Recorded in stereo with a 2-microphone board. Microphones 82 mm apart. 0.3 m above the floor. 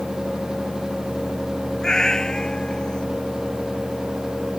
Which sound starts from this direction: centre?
A cat meowing, at 1.8 s.